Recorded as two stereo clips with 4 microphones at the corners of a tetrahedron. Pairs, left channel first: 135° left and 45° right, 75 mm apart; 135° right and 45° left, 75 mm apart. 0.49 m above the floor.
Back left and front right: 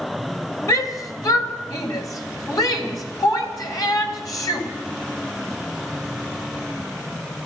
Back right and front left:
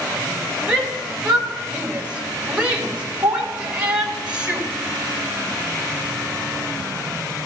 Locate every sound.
0.7 s a shout: 115° left, 2.5 m